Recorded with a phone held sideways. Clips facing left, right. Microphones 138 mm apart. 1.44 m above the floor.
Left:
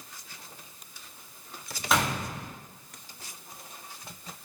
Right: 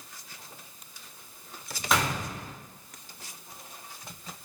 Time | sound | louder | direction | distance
1.9 | a gunshot | even | centre (ahead or behind) | 0.8 m